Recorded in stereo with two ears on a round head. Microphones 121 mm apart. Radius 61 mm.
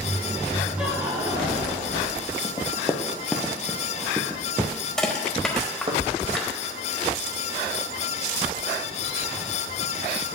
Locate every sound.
0.8 s laughter: 10° right (ahead or behind), 1.3 m; by 2.0 s 50° right (ahead or behind), 1.5 m
2.4 s running footsteps: 30° left (ahead or behind), 1.1 m; by 6.0 s 40° right (ahead or behind), 1.7 m
5.0 s crushing: 5° left (ahead or behind), 1.2 m